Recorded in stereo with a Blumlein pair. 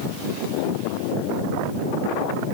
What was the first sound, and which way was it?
Only background noise.